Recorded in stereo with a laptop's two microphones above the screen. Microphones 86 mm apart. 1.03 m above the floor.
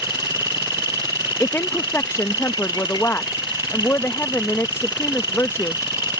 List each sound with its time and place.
0.0 s an insect: 65° left (ahead or behind)
1.4 s a woman speaking: 30° left (ahead or behind)